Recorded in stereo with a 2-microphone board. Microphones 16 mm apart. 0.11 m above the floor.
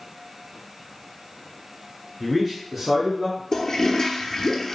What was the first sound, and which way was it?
A man speaking, centre (ahead or behind).